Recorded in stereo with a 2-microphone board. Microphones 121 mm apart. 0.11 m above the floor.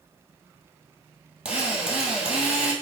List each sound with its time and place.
1.4 s a drill: 10° right (ahead or behind), 2.5 m